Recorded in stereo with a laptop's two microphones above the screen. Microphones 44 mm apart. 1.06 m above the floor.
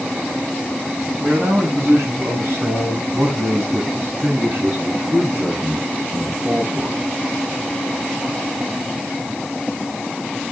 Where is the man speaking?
85° right, 8 m; by 7.0 s 55° right (ahead or behind), 8 m.